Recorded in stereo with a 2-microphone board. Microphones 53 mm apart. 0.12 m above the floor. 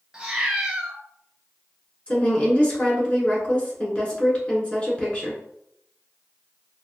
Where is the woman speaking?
25° left (ahead or behind), 1.5 m.